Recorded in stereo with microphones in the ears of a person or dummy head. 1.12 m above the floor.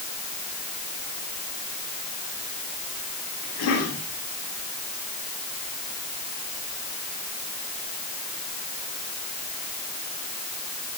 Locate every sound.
3.4 s a cough: 80° left, 9.5 m